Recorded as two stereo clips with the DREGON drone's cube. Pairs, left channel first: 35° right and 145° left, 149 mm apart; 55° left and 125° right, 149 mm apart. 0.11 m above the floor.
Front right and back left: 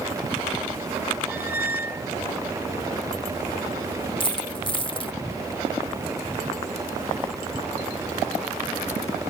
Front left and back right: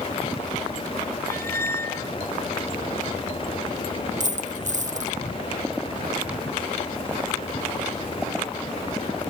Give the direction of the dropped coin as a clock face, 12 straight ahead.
3 o'clock.